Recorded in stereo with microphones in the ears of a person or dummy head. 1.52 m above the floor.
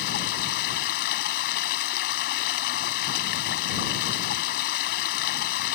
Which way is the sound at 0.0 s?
55° left (ahead or behind).